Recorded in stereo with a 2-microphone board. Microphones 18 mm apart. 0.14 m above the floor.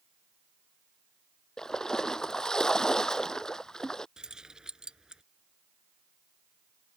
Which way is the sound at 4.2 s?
45° right (ahead or behind).